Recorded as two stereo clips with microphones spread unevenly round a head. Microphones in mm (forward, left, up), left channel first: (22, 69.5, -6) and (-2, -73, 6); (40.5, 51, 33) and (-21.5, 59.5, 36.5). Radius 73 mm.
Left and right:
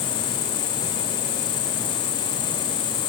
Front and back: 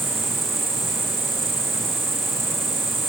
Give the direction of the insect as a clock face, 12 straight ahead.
8 o'clock.